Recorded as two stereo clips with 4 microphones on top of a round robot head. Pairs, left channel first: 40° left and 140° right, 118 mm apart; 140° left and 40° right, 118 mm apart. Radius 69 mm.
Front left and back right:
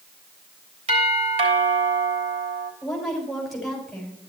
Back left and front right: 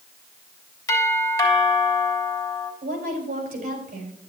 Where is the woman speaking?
45° right, 4.5 m.